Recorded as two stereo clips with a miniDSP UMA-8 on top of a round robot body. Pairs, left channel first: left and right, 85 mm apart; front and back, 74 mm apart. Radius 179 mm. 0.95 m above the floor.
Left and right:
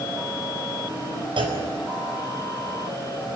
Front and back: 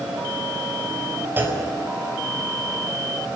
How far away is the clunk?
About 4.5 m.